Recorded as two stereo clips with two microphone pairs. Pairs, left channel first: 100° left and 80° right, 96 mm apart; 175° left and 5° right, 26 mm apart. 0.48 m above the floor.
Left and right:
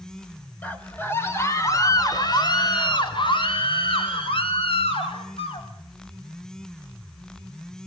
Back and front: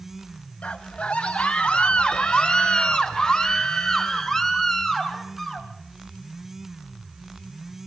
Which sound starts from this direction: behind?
A scream, at 0.6 s.